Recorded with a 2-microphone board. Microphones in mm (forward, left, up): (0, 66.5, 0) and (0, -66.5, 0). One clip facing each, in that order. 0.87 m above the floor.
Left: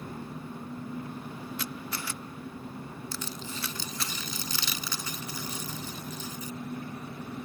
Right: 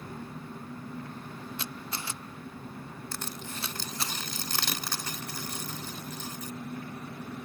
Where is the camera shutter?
25° right (ahead or behind).